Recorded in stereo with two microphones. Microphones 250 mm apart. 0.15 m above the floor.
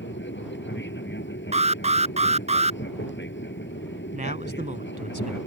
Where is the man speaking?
30° right (ahead or behind).